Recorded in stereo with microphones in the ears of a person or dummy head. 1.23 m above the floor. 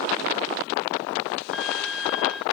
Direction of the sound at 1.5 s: Centre (ahead or behind).